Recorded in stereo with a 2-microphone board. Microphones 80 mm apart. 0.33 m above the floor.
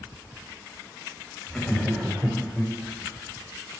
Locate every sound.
1.5 s laughter: 5° left (ahead or behind), 1.9 m